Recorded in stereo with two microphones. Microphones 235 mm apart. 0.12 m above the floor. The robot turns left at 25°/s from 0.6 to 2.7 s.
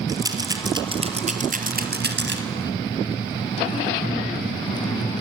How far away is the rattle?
About 1.9 m.